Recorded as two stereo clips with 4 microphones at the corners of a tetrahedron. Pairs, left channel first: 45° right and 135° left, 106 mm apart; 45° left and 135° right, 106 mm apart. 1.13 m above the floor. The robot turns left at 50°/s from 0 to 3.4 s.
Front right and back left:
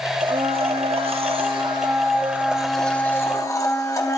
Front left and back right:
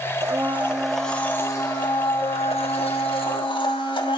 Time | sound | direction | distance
0.2 | a blender | 170° left | 1.2 m